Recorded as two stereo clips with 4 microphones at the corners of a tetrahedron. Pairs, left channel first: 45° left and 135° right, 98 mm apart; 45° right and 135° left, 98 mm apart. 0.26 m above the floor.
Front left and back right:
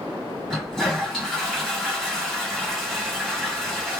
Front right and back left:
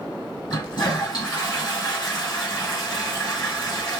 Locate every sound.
0.5 s a toilet flushing: 40° right, 2 m